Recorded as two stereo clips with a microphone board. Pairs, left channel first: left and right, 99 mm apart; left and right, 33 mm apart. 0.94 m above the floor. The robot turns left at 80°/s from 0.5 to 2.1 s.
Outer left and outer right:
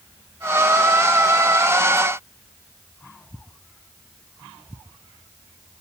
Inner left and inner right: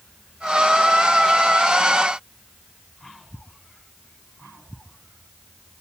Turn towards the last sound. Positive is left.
No sound to turn to.